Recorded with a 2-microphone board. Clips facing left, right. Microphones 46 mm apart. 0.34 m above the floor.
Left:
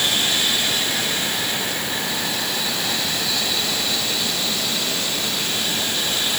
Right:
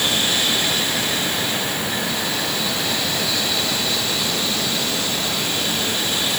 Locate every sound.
Only background noise.